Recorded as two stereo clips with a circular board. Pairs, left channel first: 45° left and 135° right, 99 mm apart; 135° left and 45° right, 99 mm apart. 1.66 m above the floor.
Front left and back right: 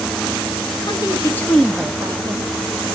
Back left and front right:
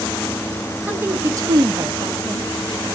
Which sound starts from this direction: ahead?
A woman speaking, at 0.9 s.